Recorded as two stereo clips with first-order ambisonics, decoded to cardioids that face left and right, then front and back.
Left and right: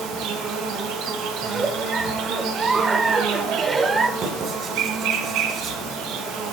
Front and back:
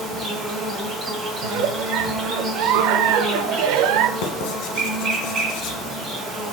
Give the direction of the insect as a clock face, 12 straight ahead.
4 o'clock.